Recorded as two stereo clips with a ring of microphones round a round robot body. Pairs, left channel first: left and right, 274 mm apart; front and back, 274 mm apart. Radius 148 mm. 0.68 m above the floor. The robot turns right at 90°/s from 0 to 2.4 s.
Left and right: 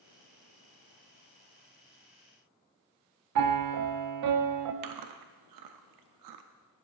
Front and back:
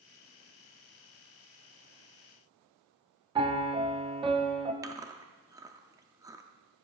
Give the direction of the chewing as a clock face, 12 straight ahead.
3 o'clock.